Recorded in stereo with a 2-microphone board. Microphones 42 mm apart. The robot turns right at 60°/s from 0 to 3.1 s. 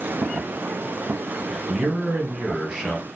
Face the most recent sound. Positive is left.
turn(degrees=15)